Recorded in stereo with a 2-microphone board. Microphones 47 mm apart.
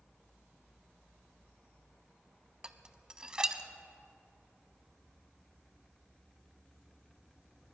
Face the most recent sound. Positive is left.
turn(degrees=-20)  # may be behind; listen again after turning